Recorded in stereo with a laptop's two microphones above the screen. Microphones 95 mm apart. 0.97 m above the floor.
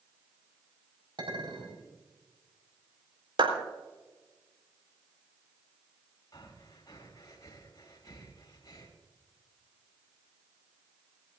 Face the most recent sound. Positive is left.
turn(degrees=40)  # may be behind; listen again after turning